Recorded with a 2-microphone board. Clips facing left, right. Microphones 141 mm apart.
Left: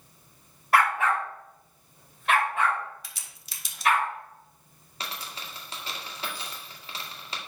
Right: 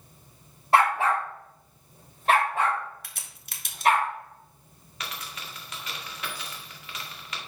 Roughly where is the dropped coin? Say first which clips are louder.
Left 1 dB; left.